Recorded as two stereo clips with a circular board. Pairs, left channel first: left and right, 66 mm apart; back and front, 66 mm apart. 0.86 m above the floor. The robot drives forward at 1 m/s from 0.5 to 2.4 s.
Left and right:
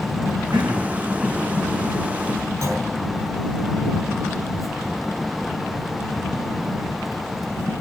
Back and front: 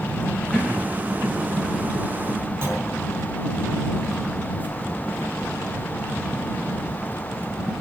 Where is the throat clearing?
95° right, 5.5 m; by 1.0 s 100° right, 5.5 m.